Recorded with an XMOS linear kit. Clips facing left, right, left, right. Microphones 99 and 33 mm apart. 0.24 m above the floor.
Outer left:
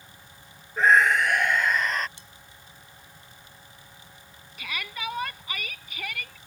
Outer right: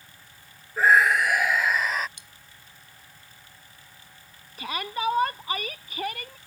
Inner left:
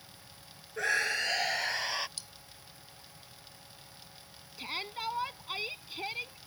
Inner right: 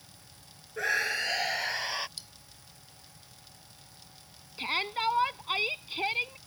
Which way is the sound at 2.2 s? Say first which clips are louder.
Outer left 2 dB, inner right 1 dB; 15° right (ahead or behind).